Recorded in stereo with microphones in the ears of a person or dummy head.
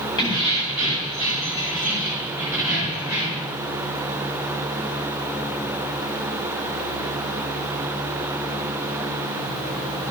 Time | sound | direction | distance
0.2 | keys jangling | 25° left (ahead or behind) | 3.5 m